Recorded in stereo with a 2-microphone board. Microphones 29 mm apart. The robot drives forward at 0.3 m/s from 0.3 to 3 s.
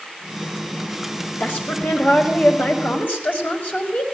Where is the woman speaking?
85° left, 6 m; by 4.0 s 80° left, 6.5 m.